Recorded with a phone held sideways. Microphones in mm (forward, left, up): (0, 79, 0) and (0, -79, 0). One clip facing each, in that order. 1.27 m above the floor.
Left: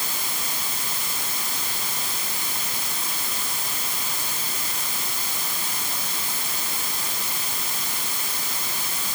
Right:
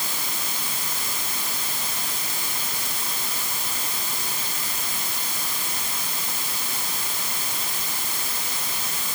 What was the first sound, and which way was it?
Only background noise.